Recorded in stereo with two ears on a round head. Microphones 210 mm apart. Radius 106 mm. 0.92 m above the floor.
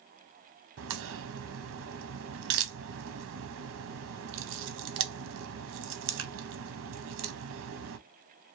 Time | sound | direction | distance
0.8 | a crack | 55° right (ahead or behind) | 0.6 m